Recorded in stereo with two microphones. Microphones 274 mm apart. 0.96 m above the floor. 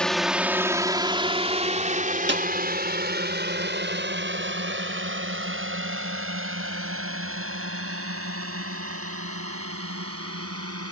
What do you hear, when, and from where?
0.0 s a drone: 5° left (ahead or behind); by 10.9 s 60° right (ahead or behind)
2.3 s a snare drum: 40° right (ahead or behind)